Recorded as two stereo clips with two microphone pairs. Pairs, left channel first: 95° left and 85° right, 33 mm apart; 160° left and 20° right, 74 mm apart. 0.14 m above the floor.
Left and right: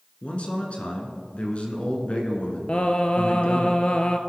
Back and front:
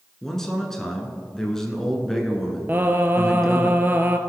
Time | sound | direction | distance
0.2 | a man speaking | 85° left | 1.4 m
2.7 | singing | 45° left | 0.6 m